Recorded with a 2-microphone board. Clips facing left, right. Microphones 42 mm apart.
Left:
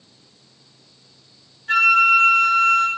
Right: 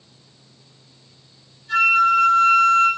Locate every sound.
1.7 s a flute: 55° left (ahead or behind), 5 m